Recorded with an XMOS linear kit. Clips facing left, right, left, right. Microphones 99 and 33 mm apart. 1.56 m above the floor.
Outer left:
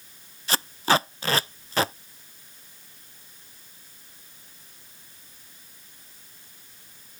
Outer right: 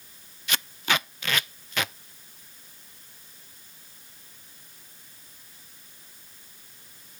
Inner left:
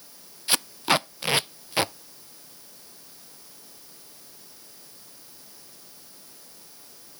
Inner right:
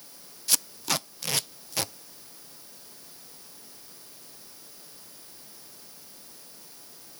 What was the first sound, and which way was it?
Tape being pulled, 35° left (ahead or behind).